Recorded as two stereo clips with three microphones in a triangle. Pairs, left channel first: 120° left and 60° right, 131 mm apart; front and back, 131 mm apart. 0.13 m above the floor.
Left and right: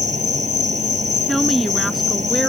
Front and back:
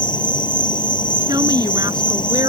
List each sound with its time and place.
0.0 s an insect: 50° right
1.3 s a woman speaking: 150° right